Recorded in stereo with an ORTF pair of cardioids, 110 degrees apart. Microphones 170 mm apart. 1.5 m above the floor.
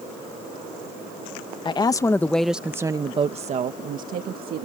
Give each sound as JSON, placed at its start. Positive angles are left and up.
{"t": 1.6, "sound": "a woman speaking", "azimuth_deg": 30}